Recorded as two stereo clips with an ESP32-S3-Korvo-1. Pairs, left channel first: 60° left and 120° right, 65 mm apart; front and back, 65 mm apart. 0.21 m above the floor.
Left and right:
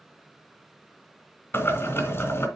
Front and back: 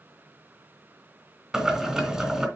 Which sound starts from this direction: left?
Boiling, at 1.5 s.